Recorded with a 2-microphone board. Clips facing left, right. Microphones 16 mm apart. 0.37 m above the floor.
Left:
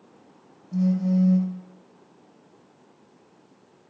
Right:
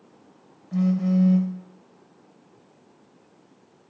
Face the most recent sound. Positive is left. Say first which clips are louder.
# right 1 dB
turn(degrees=-40)  # may be behind; listen again after turning